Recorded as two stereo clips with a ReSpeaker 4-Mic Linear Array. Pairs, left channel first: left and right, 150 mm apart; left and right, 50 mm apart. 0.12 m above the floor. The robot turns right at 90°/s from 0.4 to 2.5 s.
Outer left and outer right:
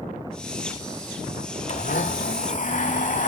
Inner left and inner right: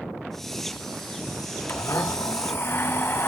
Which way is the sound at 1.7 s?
50° left.